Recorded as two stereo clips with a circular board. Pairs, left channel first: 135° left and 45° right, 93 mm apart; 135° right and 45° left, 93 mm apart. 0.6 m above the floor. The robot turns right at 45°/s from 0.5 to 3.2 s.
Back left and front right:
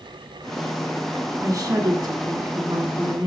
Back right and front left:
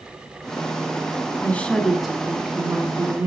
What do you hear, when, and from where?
1.4 s a woman speaking: 75° right, 1.4 m; by 3.3 s 5° left, 1.4 m